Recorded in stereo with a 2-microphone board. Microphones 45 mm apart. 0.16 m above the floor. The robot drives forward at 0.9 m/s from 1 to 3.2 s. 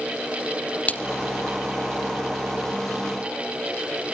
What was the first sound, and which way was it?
A splash, 35° left (ahead or behind).